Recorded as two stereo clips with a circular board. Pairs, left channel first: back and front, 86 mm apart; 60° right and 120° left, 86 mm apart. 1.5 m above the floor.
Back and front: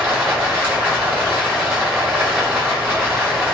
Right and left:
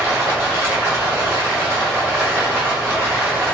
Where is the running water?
55° left, 1.9 m.